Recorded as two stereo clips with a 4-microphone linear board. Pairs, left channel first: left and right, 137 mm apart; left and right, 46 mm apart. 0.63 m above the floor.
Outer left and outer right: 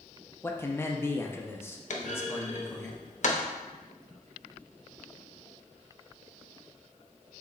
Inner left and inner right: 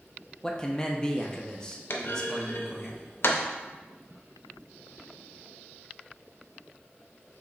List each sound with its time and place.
0.4 s a man speaking: 15° left (ahead or behind), 0.5 m
1.9 s a clunk: 60° left (ahead or behind), 0.6 m